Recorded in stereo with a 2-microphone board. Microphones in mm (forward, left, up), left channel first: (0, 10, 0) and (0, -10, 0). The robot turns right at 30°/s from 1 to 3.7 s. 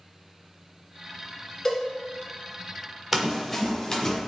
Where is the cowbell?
15° left (ahead or behind), 1.5 m.